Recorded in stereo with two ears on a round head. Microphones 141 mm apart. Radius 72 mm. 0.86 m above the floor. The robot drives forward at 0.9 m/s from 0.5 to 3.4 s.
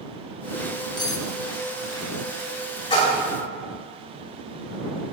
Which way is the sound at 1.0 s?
25° left (ahead or behind).